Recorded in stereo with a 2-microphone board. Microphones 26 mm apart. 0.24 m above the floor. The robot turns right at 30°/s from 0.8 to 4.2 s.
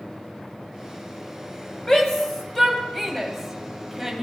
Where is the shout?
20° left (ahead or behind), 1.7 m; by 4.2 s 10° right (ahead or behind), 1.7 m.